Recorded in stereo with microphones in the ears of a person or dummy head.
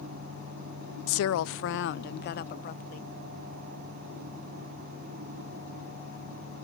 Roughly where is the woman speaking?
Left.